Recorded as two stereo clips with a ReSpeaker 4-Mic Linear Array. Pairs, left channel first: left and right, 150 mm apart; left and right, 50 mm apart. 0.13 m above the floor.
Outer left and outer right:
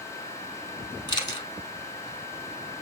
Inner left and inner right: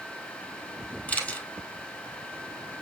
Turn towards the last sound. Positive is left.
turn(degrees=30)  # may be behind; listen again after turning